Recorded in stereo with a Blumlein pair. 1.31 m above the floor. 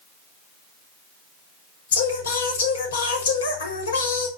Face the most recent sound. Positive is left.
turn(degrees=65)